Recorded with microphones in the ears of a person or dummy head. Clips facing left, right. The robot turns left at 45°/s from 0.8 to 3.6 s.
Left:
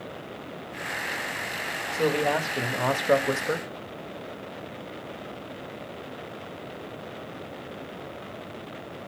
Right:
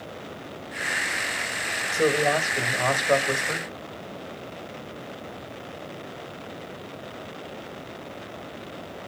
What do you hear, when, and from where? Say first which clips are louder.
1.9 s a man speaking: right 2 dB; 160° right, 1.6 m; by 3.7 s 125° left, 1.6 m